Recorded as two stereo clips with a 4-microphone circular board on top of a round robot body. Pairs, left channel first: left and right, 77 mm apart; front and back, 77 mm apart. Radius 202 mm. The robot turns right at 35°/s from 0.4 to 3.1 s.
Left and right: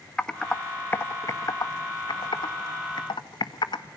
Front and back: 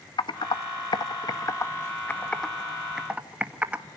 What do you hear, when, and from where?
0.2 s typing on a keyboard: 10° left, 1.8 m; by 3.8 s 105° left, 1.8 m